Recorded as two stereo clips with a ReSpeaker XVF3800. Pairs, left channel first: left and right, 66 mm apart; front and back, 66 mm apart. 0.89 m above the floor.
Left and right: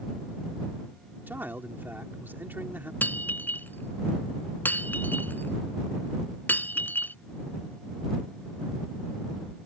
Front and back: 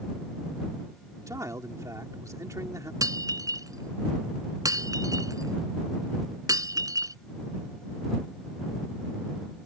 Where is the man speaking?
150° right.